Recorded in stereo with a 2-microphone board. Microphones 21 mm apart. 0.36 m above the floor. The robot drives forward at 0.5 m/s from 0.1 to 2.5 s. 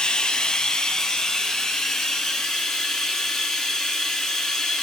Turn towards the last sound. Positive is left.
turn(degrees=20)  # may be behind; listen again after turning